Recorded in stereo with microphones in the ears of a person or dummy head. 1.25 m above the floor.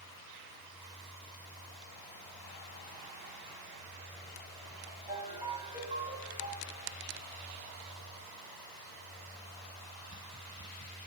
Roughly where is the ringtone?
Right.